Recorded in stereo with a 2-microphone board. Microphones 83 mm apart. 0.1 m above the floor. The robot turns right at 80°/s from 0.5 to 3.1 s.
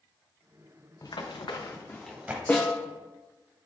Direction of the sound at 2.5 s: 30° left (ahead or behind).